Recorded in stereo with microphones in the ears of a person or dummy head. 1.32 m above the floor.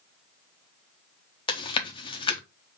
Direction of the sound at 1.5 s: 25° left (ahead or behind).